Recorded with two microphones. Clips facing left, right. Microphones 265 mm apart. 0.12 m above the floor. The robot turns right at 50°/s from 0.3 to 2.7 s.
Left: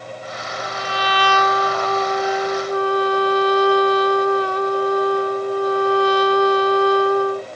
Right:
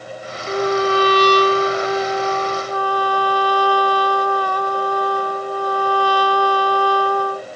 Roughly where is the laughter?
I don't hear laughter.